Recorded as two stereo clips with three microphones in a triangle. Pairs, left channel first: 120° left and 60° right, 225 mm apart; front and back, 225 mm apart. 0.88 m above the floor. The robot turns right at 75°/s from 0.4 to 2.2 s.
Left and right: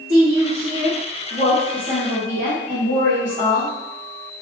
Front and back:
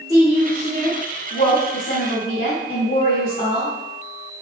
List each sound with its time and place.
0.1 s a woman speaking: 90° right, 1.4 m; by 3.7 s 45° left, 1.4 m